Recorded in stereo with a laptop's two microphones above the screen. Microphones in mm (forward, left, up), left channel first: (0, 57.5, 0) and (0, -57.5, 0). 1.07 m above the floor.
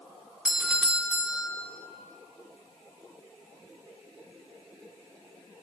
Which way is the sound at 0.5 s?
5° right (ahead or behind).